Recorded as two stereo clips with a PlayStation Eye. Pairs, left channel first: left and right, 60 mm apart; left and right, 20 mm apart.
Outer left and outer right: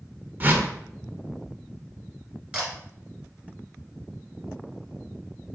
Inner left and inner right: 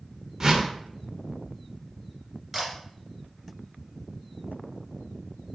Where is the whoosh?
30° right (ahead or behind), 0.6 m.